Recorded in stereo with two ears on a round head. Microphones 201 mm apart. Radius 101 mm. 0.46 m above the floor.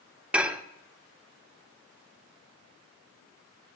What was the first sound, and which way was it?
Dishes clattering, 5° right (ahead or behind).